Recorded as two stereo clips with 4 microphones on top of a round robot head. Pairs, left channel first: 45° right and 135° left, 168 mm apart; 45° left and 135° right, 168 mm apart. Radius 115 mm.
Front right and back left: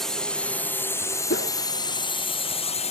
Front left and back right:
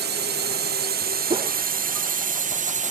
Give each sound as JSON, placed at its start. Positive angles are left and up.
{"t": 0.0, "sound": "a drone", "azimuth_deg": -135}
{"t": 1.3, "sound": "a whoosh", "azimuth_deg": -75}